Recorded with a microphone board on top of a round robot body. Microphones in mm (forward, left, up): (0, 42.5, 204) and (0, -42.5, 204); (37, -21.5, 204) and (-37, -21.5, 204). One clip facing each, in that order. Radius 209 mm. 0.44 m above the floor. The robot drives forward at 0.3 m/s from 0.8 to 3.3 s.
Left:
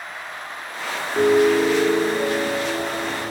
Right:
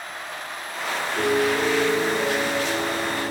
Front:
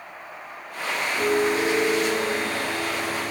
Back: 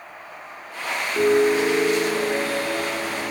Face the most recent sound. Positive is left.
turn(degrees=155)